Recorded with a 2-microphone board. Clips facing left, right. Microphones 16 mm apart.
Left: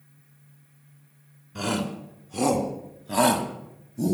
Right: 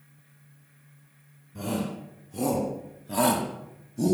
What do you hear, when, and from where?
1.6 s a shout: 60° left (ahead or behind), 3.5 m; by 4.1 s 20° right (ahead or behind), 1.7 m